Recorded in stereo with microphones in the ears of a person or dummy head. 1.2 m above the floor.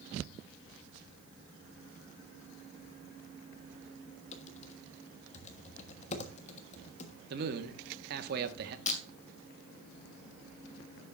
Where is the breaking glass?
40° left (ahead or behind), 2 m.